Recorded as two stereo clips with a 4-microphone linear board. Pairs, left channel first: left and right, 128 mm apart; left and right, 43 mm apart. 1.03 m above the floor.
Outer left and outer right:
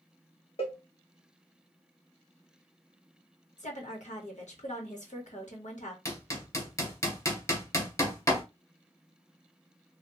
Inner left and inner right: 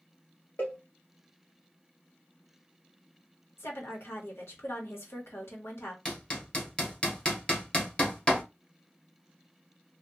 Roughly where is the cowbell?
Left.